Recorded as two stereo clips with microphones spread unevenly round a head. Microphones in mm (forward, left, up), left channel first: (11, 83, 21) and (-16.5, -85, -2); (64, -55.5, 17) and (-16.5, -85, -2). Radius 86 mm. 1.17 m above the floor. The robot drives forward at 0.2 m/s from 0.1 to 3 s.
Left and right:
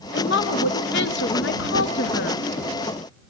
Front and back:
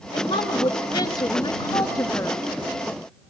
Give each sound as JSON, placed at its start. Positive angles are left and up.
{"t": 0.1, "sound": "a woman speaking", "azimuth_deg": 60, "distance_m": 0.8}